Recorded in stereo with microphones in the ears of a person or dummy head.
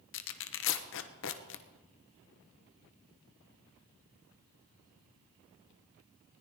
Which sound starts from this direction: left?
Tearing paper, at 0.1 s.